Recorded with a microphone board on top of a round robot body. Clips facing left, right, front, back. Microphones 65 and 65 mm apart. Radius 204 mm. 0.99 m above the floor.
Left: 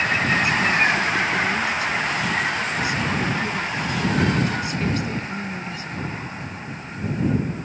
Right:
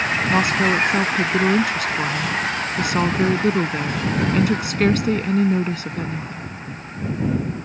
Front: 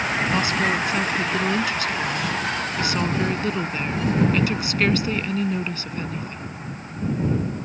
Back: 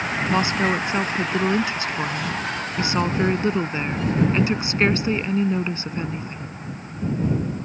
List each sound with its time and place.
0.3 s a woman speaking: 115° right